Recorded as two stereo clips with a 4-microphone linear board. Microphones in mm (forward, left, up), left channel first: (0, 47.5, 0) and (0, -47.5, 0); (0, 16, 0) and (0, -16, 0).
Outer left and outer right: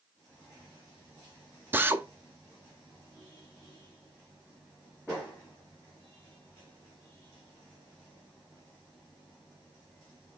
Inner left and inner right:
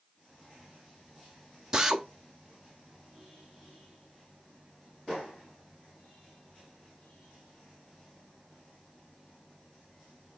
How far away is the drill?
About 0.5 m.